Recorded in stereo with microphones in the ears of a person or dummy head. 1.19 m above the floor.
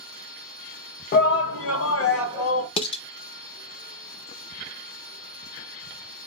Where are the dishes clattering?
35° left (ahead or behind), 0.6 m.